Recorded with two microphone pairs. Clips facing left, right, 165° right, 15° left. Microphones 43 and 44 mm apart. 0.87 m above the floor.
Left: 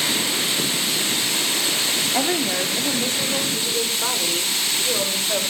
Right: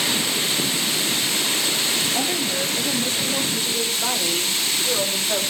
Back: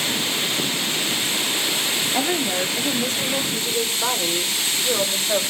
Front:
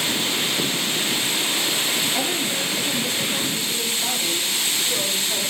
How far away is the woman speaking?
About 1.6 m.